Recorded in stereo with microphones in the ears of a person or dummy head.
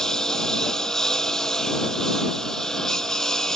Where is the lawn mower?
Centre (ahead or behind).